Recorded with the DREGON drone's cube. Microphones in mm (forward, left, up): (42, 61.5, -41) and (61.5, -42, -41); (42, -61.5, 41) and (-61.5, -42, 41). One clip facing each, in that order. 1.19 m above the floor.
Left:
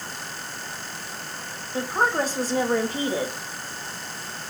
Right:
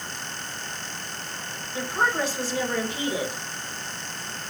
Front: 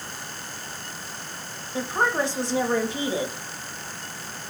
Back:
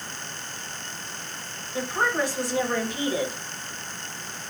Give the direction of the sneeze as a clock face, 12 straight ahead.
No sneeze in this recording.